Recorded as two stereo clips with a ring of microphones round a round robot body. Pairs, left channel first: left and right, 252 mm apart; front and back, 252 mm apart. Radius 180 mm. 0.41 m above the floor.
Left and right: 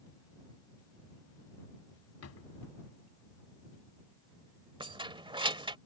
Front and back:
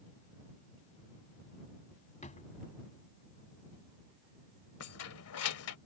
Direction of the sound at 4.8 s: 20° right.